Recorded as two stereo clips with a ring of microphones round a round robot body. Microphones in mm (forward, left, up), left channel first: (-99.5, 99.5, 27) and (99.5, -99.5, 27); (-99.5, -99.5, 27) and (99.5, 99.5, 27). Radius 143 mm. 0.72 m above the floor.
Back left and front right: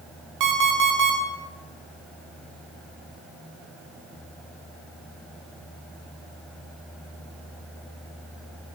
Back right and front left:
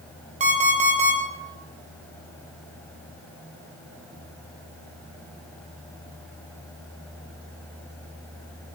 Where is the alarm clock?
20° right, 1.4 m.